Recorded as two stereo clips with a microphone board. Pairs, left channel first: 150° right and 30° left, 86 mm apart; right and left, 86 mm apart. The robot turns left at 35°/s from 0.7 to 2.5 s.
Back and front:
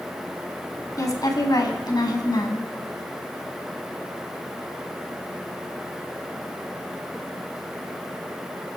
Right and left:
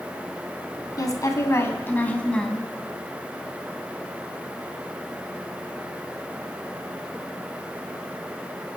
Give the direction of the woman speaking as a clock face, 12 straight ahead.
4 o'clock.